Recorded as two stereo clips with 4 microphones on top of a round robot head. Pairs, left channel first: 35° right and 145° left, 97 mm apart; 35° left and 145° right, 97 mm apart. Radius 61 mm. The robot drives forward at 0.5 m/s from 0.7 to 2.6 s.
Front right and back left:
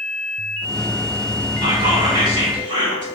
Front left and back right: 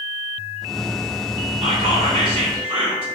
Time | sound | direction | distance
1.6 | whispering | straight behind | 2.5 m